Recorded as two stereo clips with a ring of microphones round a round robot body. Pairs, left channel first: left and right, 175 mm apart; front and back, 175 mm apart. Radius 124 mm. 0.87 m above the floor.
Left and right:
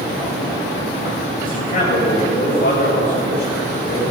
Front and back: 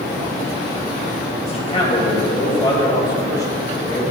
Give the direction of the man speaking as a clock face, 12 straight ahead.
10 o'clock.